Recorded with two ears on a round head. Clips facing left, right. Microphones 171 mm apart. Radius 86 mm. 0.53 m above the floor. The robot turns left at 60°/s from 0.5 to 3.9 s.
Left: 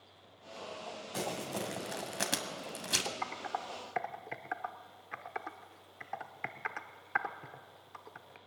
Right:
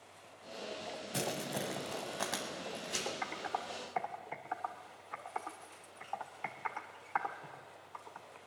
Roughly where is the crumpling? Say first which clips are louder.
Left 1 dB; right.